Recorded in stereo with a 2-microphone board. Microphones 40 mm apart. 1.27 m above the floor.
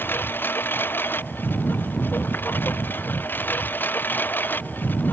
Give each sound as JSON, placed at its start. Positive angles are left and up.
{"t": 0.0, "sound": "a lawn mower", "side_deg": 65}